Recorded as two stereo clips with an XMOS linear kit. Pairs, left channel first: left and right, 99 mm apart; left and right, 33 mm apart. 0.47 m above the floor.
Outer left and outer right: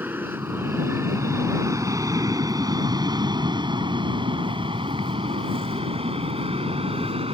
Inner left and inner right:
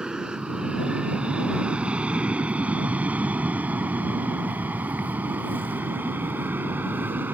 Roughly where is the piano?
No piano in this recording.